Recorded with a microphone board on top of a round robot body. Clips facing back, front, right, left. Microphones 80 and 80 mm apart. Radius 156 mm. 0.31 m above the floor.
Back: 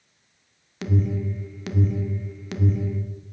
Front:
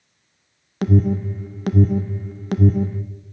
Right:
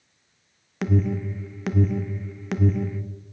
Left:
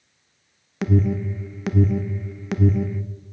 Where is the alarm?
Straight ahead, 0.8 m.